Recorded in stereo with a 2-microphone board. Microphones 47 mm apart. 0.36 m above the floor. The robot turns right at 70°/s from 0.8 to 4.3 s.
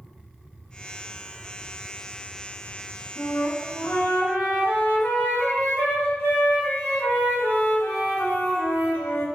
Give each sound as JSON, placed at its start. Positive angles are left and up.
{"t": 3.1, "sound": "a flute", "azimuth_deg": 40, "distance_m": 1.1}